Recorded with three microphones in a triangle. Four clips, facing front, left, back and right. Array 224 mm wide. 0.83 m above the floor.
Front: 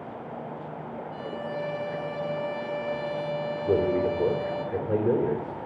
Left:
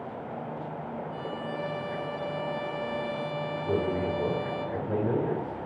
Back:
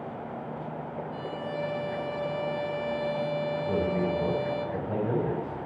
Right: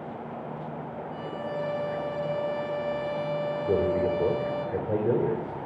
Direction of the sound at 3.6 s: Straight ahead.